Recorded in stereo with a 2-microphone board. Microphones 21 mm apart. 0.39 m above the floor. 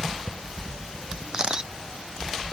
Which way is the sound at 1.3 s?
35° right (ahead or behind).